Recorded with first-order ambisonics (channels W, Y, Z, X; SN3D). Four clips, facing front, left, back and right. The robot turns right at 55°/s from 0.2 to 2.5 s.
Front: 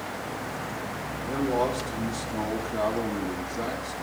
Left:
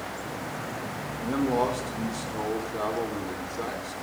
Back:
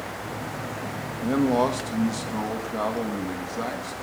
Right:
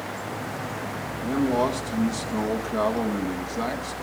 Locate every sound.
1.2 s a man speaking: 175° left, 2.5 m; by 3.9 s 115° right, 2.5 m